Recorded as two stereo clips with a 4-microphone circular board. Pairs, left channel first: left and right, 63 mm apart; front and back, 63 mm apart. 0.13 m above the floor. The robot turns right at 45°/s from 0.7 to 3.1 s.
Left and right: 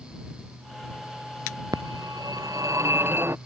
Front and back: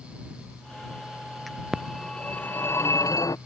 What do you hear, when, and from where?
1.7 s a phone ringing: 95° right; by 3.4 s 35° right